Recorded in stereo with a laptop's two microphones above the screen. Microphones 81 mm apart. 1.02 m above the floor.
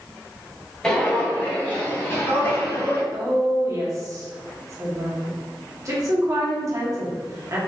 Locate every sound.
0.8 s footsteps: 10° left (ahead or behind), 1.0 m; by 3.0 s 30° left (ahead or behind), 1.5 m
3.1 s a woman speaking: 40° right (ahead or behind), 1.3 m